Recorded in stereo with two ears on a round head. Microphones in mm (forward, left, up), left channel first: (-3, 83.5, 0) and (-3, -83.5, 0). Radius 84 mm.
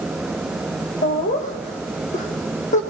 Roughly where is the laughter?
Left.